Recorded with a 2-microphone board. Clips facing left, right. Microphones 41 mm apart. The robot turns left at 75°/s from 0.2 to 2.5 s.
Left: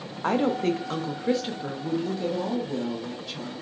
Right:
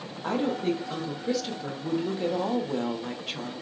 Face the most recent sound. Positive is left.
turn(degrees=-50)